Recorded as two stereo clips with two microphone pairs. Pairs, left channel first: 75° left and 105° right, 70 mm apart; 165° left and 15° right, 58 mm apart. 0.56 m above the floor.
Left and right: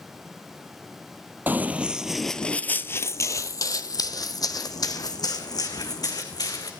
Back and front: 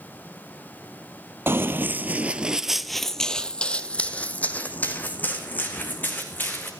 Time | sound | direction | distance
1.5 | running footsteps | 50° right | 0.8 m